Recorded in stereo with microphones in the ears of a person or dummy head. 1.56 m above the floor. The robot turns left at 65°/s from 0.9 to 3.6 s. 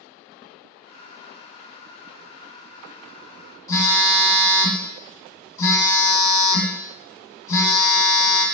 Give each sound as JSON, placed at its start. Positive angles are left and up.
{"t": 3.7, "sound": "a phone buzzing", "side_deg": 15, "distance_m": 0.9}